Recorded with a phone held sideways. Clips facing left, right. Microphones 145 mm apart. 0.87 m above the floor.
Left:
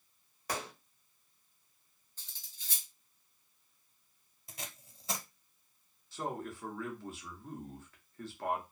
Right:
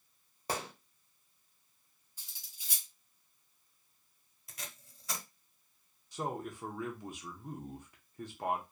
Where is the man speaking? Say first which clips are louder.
Right 1 dB; 15° right (ahead or behind), 0.6 m.